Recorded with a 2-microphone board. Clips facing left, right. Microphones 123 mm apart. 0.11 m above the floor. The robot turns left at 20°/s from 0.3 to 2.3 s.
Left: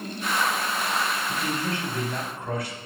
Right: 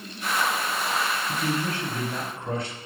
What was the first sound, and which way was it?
A man speaking, 10° right (ahead or behind).